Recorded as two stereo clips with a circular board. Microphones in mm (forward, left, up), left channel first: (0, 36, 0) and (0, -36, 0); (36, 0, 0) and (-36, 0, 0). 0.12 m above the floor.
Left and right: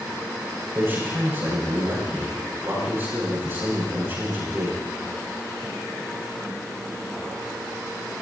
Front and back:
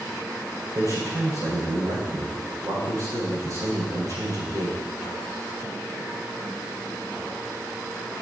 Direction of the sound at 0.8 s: 145° right.